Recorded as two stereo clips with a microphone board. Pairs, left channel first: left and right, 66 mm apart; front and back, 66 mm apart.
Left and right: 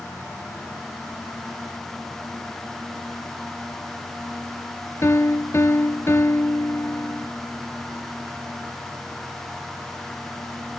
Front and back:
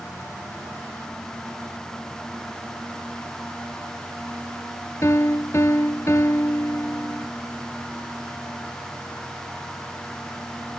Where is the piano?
40° left.